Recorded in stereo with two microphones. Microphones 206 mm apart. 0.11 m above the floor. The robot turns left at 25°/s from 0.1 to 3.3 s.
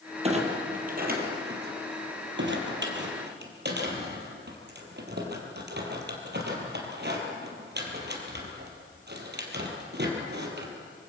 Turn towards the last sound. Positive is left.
turn(degrees=-55)  # may be behind; listen again after turning